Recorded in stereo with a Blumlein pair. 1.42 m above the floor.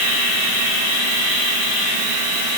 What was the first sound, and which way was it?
Only background noise.